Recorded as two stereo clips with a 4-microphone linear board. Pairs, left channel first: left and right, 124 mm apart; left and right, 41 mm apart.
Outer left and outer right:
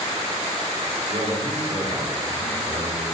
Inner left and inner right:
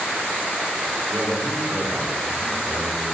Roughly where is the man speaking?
Right.